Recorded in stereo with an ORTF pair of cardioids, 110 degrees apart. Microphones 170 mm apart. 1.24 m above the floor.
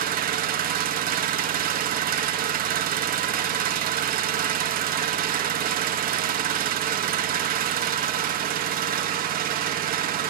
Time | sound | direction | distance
0.0 | an engine running | 60° right | 1.0 m